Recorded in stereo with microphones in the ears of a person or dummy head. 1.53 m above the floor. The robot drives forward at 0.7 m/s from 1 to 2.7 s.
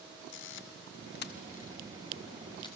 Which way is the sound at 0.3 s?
65° left (ahead or behind).